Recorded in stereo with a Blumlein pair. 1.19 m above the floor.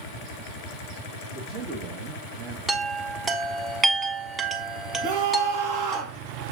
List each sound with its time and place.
1.3 s a man speaking: 50° right, 1.9 m; by 2.6 s 15° right, 1.1 m
2.7 s a chime: 20° right, 1.1 m
5.0 s a scream: 50° right, 1.7 m